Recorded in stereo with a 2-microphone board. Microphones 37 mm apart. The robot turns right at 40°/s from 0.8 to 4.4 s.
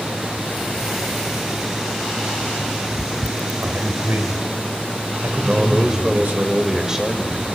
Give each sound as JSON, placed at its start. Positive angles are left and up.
{"t": 3.6, "sound": "a man speaking", "azimuth_deg": -110, "distance_m": 2.5}
{"t": 5.4, "sound": "a man speaking", "side_deg": -20, "distance_m": 3.0}